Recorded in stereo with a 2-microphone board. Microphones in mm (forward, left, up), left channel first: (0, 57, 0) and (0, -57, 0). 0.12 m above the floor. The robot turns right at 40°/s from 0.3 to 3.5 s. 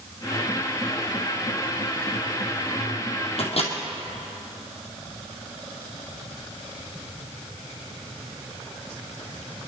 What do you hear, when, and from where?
3.4 s a microwave: 65° left (ahead or behind), 3 m; by 3.7 s 60° left (ahead or behind), 3 m